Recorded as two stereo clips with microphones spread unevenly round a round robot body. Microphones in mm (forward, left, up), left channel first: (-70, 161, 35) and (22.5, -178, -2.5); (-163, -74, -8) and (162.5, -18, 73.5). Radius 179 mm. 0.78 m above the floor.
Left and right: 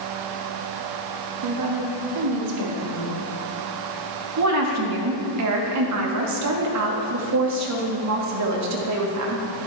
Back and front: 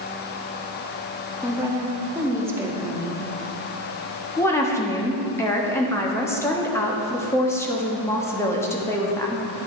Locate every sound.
1.4 s a woman speaking: 80° right, 1.6 m
4.4 s a woman speaking: 100° right, 1.2 m